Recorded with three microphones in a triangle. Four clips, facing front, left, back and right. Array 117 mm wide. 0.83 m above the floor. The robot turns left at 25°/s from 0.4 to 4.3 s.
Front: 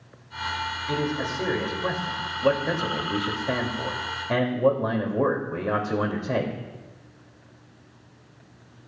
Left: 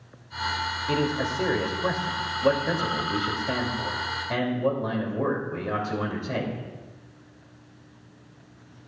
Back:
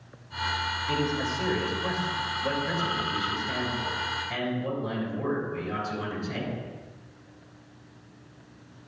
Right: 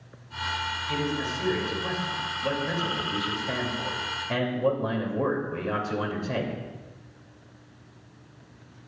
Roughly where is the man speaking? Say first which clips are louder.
Left 4 dB, front 1 dB; left.